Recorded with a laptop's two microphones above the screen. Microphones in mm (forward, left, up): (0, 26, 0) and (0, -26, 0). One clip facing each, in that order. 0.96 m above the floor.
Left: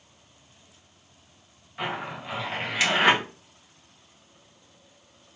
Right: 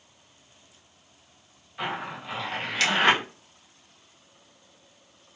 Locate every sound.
1.8 s a zipper: 15° left (ahead or behind), 1.5 m